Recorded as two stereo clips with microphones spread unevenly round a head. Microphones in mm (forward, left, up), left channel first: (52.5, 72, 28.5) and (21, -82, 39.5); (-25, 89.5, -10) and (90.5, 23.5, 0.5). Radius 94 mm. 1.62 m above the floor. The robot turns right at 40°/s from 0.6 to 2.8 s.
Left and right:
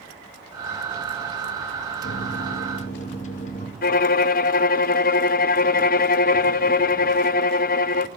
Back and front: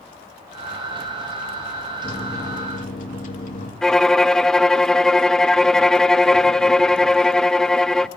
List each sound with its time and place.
2.0 s a microwave: 100° left, 2.5 m; by 3.7 s 130° left, 2.5 m
3.8 s a violin: 60° left, 0.6 m